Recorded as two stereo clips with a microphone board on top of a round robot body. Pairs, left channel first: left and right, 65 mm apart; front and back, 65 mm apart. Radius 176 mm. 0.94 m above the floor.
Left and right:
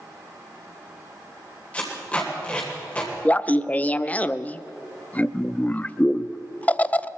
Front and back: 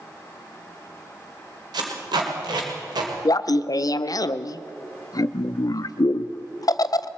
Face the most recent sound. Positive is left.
turn(degrees=20)